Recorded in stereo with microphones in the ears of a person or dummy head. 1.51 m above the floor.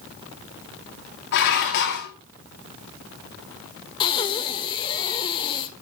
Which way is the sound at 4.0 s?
25° left (ahead or behind).